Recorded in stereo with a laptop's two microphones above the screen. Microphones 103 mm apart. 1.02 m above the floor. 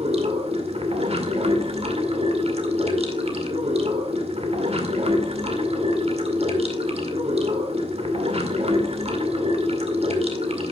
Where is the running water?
85° right, 2 m.